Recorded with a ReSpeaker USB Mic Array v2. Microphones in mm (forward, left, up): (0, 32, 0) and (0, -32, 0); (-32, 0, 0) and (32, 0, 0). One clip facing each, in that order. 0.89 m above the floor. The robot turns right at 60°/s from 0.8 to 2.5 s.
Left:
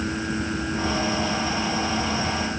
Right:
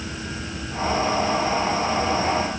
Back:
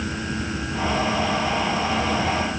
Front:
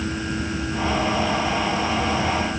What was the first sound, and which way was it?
Only background noise.